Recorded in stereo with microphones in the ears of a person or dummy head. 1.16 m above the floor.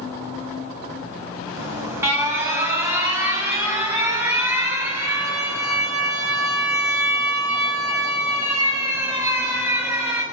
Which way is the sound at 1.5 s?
10° right (ahead or behind).